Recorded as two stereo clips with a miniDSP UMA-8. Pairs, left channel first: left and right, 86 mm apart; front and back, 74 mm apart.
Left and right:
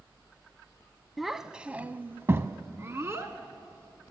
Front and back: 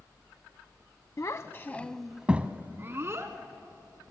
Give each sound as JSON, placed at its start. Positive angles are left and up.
{"t": 1.2, "sound": "a child speaking", "azimuth_deg": 0, "distance_m": 0.8}